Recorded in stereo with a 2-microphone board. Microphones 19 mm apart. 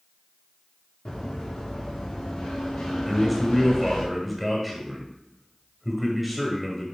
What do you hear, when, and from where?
1.1 s running footsteps: 60° left (ahead or behind), 3.5 m; by 4.1 s 80° left, 4.5 m
3.1 s a man speaking: centre (ahead or behind), 1.2 m